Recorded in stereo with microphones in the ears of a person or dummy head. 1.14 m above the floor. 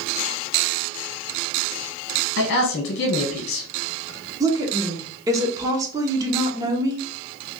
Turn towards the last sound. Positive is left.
turn(degrees=-20)  # may be behind; listen again after turning